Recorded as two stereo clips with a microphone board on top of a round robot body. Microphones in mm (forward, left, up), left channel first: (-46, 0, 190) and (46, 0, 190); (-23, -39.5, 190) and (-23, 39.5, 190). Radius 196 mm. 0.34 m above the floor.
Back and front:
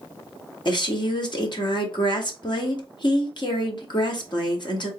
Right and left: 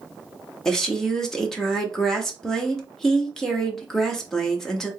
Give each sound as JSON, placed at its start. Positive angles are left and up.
{"t": 0.7, "sound": "a woman speaking", "azimuth_deg": -170, "distance_m": 1.6}